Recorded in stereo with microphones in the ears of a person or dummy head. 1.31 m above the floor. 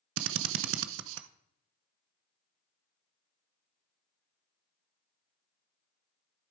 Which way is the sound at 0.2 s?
75° right (ahead or behind).